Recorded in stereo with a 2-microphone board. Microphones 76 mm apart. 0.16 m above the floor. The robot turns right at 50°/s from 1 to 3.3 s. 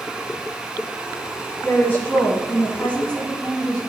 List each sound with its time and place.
1.6 s a woman speaking: 25° left (ahead or behind), 1.2 m; by 3.8 s 10° left (ahead or behind), 1.2 m